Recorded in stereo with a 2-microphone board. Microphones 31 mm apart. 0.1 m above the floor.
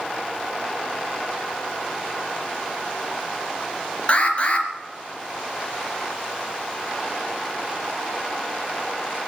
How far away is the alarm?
About 3 m.